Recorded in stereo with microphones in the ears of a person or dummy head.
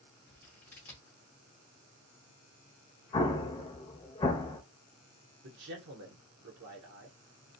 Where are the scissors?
10° left (ahead or behind), 0.7 m.